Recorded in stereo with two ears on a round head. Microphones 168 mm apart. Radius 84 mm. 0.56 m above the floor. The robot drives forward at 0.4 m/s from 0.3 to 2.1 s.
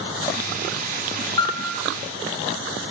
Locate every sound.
1.4 s a piano: 25° left (ahead or behind), 1.2 m; by 1.8 s 30° left (ahead or behind), 1.1 m